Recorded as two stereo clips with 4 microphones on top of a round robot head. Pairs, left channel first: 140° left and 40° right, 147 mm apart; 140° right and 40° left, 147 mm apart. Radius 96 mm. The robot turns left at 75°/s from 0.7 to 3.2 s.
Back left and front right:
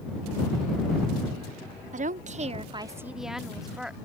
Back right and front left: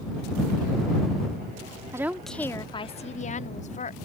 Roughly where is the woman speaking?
Ahead right.